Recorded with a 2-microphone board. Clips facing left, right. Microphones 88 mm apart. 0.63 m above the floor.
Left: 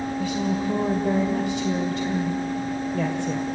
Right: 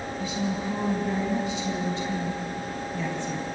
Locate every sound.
0.2 s a woman speaking: 70° left (ahead or behind), 2.5 m